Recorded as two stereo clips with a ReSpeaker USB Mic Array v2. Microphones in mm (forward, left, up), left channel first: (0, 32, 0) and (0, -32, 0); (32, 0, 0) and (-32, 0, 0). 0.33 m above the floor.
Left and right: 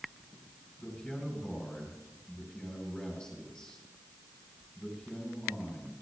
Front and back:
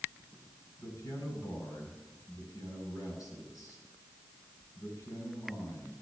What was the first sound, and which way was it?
A man speaking, 15° left.